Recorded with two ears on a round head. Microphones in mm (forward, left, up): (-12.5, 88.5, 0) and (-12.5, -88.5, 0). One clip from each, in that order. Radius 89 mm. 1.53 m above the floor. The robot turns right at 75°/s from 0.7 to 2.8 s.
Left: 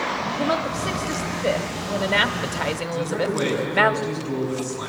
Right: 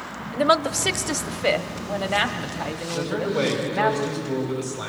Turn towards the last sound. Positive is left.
turn(degrees=-25)  # may be behind; listen again after turning